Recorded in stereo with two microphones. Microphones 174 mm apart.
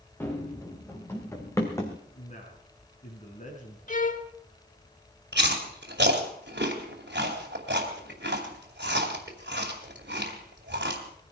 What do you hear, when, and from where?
0.2 s running footsteps: 10° left (ahead or behind), 4 m; by 2.0 s 15° left (ahead or behind), 2.5 m
2.2 s a man speaking: 40° left (ahead or behind), 6 m
3.9 s a violin: 45° left (ahead or behind), 0.8 m
5.3 s chewing: 75° right (ahead or behind), 2.5 m